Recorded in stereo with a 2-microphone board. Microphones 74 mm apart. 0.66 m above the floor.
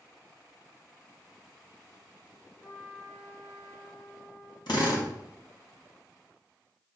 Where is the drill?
75° left (ahead or behind), 2.5 m.